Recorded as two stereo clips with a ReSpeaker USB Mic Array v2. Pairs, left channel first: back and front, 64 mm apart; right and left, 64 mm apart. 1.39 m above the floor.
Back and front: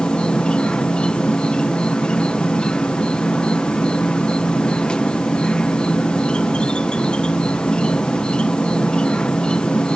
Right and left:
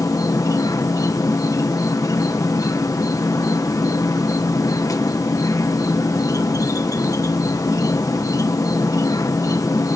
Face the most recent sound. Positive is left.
turn(degrees=-105)